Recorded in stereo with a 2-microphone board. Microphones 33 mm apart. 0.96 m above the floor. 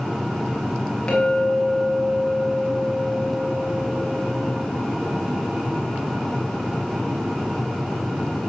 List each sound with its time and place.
1.1 s a clink: 15° left (ahead or behind), 4.5 m